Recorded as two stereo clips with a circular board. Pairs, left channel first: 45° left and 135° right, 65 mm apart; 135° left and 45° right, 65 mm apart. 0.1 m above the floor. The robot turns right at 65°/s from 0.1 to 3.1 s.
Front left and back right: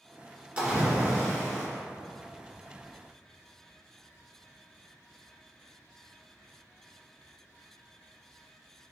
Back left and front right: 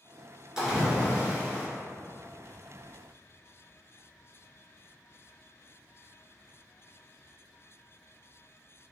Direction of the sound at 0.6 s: 110° right.